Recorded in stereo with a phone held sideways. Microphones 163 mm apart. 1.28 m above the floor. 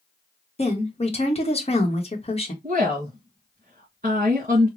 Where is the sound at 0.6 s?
40° left (ahead or behind), 1.0 m.